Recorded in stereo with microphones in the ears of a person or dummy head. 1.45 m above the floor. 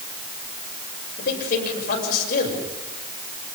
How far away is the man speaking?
About 8 m.